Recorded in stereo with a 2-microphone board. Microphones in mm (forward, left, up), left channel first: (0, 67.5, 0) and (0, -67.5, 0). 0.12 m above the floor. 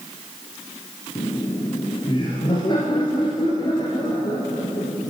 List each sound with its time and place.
1.1 s laughter: 35° left (ahead or behind), 2.0 m